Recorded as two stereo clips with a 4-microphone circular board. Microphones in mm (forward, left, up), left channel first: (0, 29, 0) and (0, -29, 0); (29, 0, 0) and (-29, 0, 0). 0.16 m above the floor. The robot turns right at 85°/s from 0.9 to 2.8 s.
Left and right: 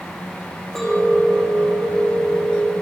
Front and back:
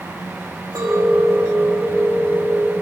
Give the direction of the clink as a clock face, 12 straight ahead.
6 o'clock.